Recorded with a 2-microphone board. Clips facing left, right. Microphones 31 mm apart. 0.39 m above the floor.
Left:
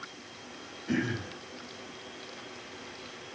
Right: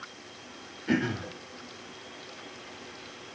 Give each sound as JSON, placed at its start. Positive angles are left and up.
{"t": 0.9, "sound": "throat clearing", "side_deg": -45, "distance_m": 8.0}